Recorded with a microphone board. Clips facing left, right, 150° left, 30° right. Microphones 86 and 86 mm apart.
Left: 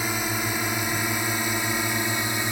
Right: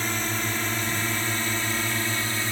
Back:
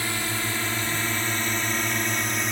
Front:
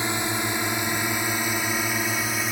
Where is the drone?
20° left; by 2.5 s 50° left.